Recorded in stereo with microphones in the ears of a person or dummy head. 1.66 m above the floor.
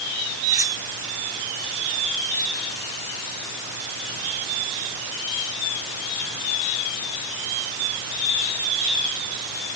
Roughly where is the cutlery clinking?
Centre.